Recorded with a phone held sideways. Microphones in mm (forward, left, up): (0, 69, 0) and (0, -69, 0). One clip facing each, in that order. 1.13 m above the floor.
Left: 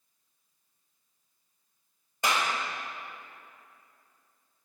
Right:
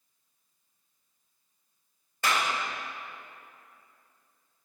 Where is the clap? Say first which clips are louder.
Even; 15° left (ahead or behind), 1.7 m.